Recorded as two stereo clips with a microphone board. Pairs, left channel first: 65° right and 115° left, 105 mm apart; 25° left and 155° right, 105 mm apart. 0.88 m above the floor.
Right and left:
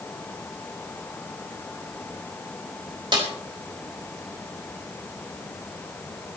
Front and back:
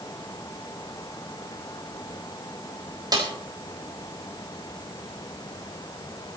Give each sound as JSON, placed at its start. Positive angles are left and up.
{"t": 3.1, "sound": "a snare drum", "azimuth_deg": 155, "distance_m": 4.0}